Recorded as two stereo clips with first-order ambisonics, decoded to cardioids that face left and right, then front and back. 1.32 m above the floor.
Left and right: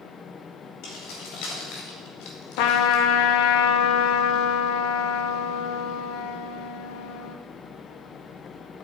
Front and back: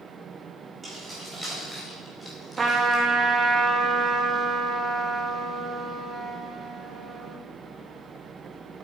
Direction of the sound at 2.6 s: 105° left.